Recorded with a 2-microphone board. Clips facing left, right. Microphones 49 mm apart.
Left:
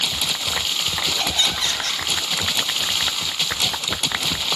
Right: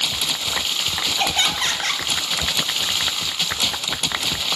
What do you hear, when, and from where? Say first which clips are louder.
1.2 s laughter: right 5 dB; 40° right (ahead or behind), 3 m